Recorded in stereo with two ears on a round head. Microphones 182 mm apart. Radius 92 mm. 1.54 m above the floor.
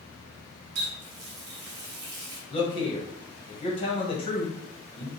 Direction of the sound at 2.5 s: 25° left (ahead or behind).